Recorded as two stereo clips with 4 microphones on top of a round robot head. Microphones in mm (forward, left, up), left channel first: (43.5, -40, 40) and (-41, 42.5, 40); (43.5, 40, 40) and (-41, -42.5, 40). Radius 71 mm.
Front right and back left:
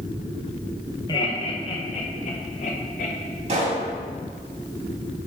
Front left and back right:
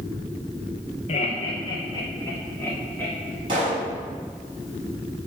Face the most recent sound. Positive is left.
turn(degrees=175)